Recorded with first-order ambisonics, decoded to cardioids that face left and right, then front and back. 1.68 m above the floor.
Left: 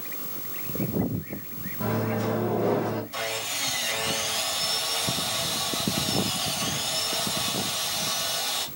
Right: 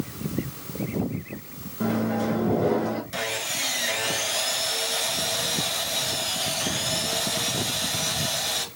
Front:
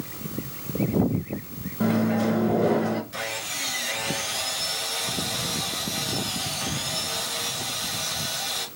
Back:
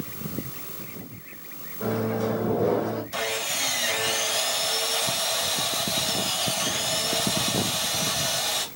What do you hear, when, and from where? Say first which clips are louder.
1.8 s a microwave: right 2 dB, front 2 dB; 10° right, 1.6 m
3.1 s sawing: right 2 dB, back 3 dB; 120° right, 1.6 m